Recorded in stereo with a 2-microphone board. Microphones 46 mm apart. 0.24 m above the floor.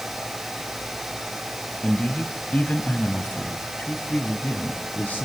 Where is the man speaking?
20° left (ahead or behind), 1.8 m; by 5.3 s 40° left (ahead or behind), 3 m.